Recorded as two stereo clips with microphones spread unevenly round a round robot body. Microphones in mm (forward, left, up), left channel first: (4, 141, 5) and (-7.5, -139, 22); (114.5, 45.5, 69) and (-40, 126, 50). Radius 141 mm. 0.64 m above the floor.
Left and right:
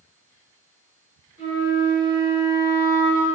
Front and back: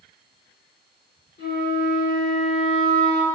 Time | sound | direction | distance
1.4 | a flute | 85° right | 1.5 m